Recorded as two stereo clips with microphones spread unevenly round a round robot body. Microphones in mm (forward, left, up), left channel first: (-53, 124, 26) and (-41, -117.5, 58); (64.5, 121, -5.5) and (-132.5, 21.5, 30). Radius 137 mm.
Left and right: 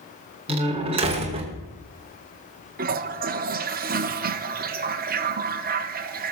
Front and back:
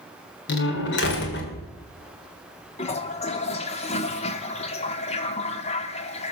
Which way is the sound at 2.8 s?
30° right.